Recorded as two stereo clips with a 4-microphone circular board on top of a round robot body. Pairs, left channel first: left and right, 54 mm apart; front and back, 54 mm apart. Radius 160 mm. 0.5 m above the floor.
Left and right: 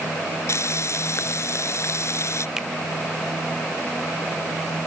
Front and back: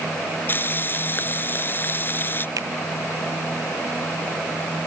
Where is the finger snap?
170° right.